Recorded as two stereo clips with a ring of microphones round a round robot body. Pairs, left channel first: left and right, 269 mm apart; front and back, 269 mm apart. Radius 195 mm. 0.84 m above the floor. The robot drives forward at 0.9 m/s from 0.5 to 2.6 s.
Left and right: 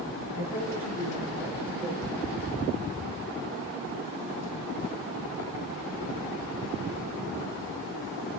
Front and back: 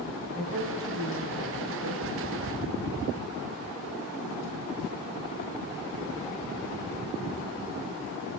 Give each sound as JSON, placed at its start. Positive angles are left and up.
{"t": 0.3, "sound": "a woman speaking", "azimuth_deg": 150, "distance_m": 6.5}